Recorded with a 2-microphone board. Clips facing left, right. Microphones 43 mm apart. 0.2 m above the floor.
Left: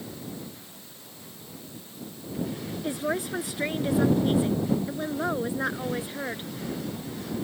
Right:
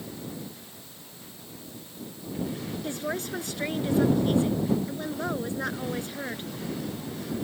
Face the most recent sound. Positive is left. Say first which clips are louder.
# left 4 dB
turn(degrees=15)  # may be behind; listen again after turning